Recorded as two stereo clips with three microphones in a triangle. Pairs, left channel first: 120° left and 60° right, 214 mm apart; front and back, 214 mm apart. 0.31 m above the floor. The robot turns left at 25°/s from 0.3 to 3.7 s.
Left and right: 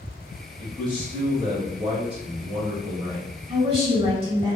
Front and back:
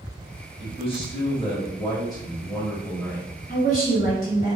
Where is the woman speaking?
10° right, 1.8 m; by 4.6 s 15° right, 1.8 m.